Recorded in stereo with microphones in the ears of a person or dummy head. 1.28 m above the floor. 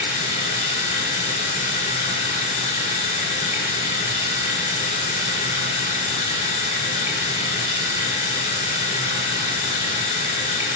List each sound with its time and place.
0.0 s running water: 35° left (ahead or behind), 1.4 m